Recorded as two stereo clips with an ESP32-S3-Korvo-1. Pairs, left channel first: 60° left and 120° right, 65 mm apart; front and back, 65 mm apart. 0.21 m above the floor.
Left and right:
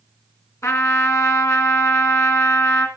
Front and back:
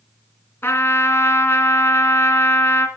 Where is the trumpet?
45° left, 2.5 m.